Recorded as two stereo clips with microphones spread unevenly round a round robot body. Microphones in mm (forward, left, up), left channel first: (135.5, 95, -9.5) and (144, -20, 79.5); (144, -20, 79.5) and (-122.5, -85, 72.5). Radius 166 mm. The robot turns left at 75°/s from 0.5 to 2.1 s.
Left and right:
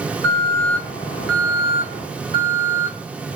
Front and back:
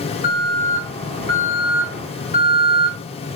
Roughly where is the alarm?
Left.